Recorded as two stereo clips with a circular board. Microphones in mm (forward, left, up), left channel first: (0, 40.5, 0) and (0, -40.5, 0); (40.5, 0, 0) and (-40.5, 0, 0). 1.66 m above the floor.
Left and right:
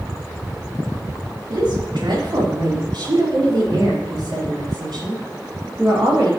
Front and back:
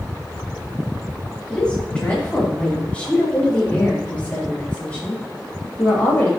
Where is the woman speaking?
75° right, 4 m; by 6.3 s 70° right, 8 m.